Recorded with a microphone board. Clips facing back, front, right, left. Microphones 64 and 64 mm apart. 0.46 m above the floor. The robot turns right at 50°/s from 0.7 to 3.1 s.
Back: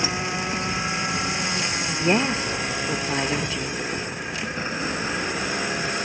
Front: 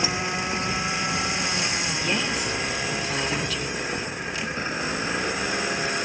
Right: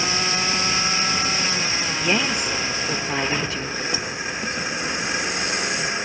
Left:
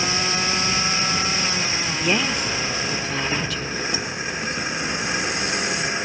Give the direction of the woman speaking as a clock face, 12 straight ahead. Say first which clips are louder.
Back 8 dB, even; 6 o'clock.